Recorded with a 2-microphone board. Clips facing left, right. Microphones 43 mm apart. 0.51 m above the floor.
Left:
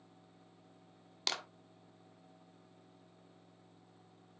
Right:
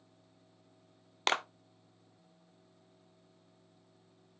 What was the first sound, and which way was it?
A clap, 40° right (ahead or behind).